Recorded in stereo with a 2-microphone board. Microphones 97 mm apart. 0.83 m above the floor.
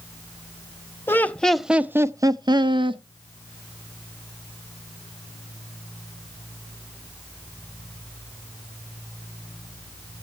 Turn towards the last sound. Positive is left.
turn(degrees=-60)  # may be behind; listen again after turning